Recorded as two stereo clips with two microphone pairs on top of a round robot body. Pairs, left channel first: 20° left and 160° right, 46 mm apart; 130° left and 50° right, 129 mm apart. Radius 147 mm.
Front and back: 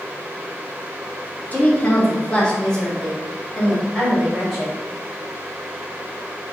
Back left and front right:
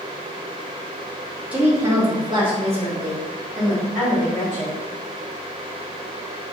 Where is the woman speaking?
25° left, 1.3 m; by 4.8 s 75° right, 2.5 m.